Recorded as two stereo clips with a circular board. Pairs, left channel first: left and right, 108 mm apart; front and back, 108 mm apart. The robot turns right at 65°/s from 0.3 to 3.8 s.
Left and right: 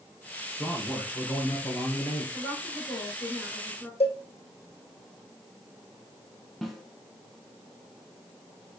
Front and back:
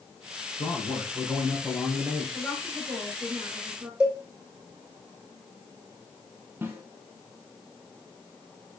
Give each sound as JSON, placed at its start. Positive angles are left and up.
{"t": 0.6, "sound": "a man speaking", "azimuth_deg": 5, "distance_m": 3.0}
{"t": 2.3, "sound": "a woman speaking", "azimuth_deg": 75, "distance_m": 3.0}
{"t": 4.0, "sound": "a cowbell", "azimuth_deg": 100, "distance_m": 2.5}
{"t": 6.6, "sound": "a snare drum", "azimuth_deg": 180, "distance_m": 1.2}